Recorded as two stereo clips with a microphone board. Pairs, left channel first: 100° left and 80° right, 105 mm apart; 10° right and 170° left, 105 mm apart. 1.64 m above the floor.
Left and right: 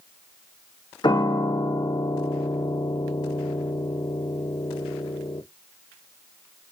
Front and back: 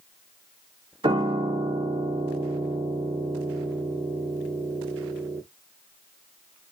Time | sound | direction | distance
1.0 | a piano | 140° left | 0.5 m